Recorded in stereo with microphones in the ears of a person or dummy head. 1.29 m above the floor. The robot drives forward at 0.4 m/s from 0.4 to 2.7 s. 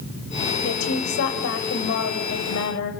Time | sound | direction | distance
0.6 | a woman speaking | 80° left | 6 m